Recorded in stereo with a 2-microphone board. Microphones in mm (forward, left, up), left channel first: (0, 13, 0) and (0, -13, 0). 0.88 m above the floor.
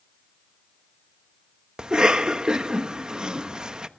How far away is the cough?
About 1.2 m.